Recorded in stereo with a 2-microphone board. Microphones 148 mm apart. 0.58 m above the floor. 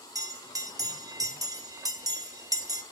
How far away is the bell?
About 1.0 m.